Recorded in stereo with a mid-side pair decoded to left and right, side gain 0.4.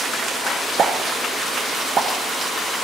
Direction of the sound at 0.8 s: 55° right.